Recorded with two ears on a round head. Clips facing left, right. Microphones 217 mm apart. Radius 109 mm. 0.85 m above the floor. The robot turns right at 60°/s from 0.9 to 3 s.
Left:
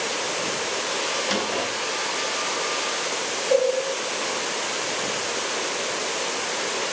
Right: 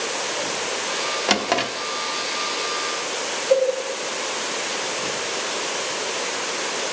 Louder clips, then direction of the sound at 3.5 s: Right 2 dB; 35° right (ahead or behind).